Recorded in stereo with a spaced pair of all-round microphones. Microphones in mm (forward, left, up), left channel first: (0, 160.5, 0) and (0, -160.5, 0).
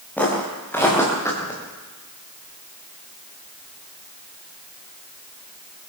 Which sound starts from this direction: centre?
Footsteps, at 0.2 s.